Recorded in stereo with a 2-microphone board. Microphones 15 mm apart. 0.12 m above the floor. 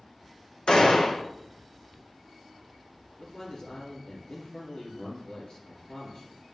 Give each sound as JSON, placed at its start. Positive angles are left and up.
{"t": 0.7, "sound": "a gunshot", "side_deg": 80, "distance_m": 1.3}
{"t": 3.2, "sound": "a man speaking", "side_deg": 45, "distance_m": 2.5}